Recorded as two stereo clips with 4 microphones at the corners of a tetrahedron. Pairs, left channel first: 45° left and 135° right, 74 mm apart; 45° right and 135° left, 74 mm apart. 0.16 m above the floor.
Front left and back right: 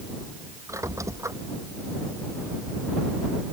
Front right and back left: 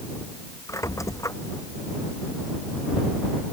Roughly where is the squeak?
Right.